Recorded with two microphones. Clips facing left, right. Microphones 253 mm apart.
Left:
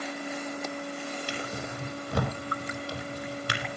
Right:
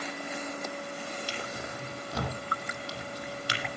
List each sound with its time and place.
1.3 s a drawer: 55° left (ahead or behind), 4.5 m